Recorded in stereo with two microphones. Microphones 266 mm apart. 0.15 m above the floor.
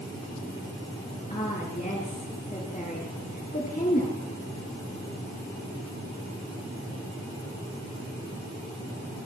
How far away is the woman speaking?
About 3 m.